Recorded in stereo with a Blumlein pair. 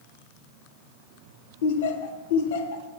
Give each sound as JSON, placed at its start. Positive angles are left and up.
{"t": 1.6, "sound": "laughter", "azimuth_deg": 55, "distance_m": 0.9}